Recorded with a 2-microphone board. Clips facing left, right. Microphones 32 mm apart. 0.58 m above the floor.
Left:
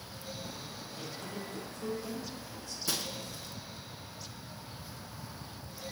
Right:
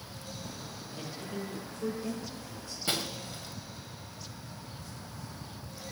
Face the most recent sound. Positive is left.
turn(degrees=-45)  # may be behind; listen again after turning